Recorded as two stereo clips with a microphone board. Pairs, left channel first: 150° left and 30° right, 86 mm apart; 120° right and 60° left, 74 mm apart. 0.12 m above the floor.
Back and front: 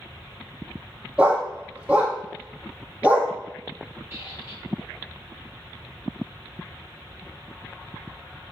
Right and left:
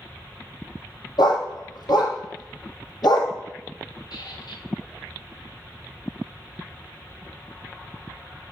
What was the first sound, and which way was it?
A dog barking, 105° right.